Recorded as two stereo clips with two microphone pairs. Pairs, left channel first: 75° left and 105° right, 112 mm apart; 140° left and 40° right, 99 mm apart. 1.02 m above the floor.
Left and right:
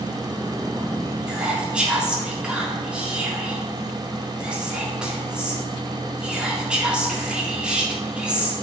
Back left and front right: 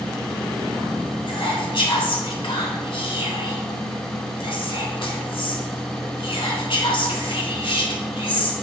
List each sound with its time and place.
1.3 s whispering: 170° left, 1.8 m